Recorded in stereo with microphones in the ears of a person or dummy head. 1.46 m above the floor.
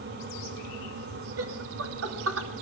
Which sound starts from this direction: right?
Laughter, at 1.4 s.